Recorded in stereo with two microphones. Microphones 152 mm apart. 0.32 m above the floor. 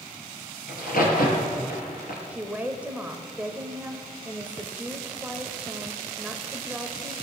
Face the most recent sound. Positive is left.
turn(degrees=-10)  # may be behind; listen again after turning